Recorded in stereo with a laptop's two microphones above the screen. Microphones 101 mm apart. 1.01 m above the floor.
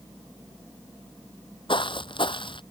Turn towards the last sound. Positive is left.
turn(degrees=55)  # may be behind; listen again after turning